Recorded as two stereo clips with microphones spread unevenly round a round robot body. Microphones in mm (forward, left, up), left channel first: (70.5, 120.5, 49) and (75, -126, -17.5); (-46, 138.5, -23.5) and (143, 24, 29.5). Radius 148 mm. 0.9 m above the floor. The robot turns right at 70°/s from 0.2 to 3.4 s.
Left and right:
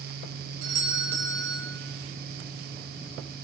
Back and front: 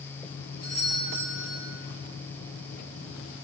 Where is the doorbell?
105° right, 5.5 m; by 1.6 s 30° right, 5.5 m.